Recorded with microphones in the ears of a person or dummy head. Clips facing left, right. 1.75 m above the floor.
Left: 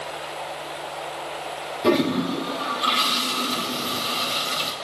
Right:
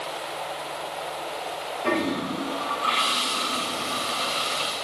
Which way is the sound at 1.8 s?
50° left (ahead or behind).